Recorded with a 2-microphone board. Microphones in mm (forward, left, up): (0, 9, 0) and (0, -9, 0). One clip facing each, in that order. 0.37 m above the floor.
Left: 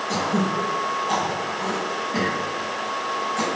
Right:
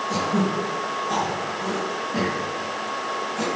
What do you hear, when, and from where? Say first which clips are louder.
0.1 s throat clearing: left 1 dB; 40° left (ahead or behind), 3.5 m